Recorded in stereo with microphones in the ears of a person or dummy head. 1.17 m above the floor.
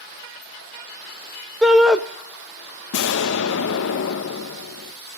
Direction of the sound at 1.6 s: Centre (ahead or behind).